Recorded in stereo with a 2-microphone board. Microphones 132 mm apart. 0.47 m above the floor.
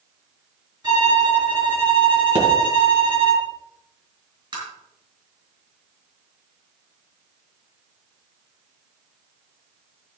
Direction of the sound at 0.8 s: 35° right (ahead or behind).